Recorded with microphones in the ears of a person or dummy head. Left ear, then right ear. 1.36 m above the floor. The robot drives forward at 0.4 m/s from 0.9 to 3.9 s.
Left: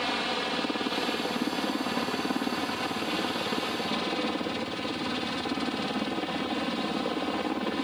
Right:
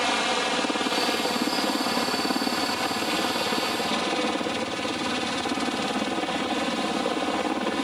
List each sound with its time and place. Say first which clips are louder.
0.0 s a helicopter: right 5 dB; 35° right (ahead or behind); by 7.8 s 30° right (ahead or behind)